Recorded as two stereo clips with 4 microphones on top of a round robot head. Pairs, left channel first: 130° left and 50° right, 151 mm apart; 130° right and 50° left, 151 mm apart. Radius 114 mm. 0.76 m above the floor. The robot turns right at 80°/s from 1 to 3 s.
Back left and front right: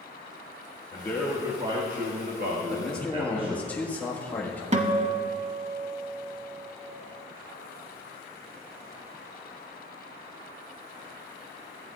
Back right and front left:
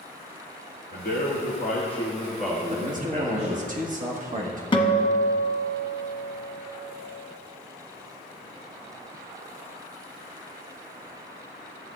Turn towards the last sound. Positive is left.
turn(degrees=-80)